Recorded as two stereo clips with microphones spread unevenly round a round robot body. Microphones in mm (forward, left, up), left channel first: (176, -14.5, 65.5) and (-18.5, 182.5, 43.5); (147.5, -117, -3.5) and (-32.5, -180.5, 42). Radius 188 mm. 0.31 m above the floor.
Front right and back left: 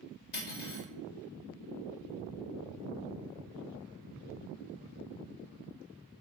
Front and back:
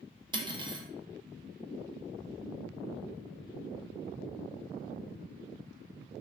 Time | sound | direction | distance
0.3 | cutlery clinking | 85° right | 0.6 m